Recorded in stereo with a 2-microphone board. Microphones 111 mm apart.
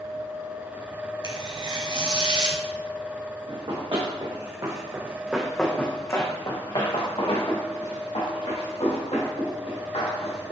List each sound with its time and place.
1.2 s tearing paper: 45° right (ahead or behind), 0.6 m
3.5 s running footsteps: 55° right (ahead or behind), 1.4 m; by 10.5 s 80° left, 3 m